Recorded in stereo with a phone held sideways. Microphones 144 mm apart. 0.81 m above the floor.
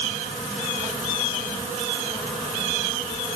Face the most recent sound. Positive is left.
No sound to turn to.